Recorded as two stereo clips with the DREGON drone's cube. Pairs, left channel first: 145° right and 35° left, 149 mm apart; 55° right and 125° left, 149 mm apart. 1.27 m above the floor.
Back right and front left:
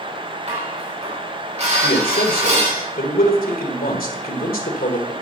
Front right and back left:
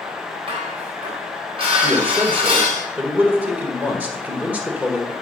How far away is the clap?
No clap in this recording.